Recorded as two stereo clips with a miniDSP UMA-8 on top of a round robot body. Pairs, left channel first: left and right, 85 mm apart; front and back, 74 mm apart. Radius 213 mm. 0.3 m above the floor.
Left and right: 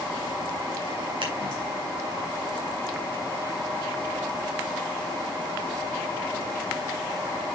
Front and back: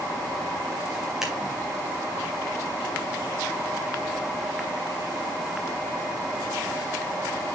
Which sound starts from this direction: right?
Scissors, at 1.2 s.